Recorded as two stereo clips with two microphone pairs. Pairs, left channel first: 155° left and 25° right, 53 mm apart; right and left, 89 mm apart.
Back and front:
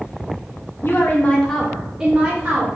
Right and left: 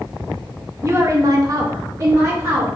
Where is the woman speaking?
140° left, 0.7 m; by 2.7 s 30° left, 1.2 m.